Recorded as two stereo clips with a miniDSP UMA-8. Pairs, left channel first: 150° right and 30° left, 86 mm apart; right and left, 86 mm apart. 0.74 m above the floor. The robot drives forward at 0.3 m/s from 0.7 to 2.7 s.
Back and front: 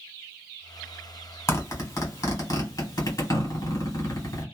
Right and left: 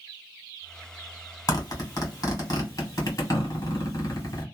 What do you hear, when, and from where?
1.5 s a zipper: 115° right, 1.6 m; by 4.4 s 130° right, 1.7 m